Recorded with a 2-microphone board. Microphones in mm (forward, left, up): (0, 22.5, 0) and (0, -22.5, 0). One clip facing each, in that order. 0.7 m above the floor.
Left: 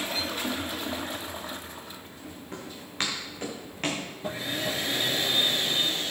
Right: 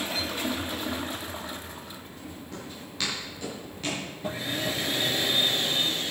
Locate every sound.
2.5 s footsteps: 35° left (ahead or behind), 5.5 m; by 4.1 s 50° left (ahead or behind), 5 m